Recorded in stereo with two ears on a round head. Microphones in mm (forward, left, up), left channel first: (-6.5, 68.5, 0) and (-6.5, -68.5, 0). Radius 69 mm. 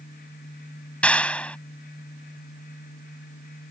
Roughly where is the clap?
Centre.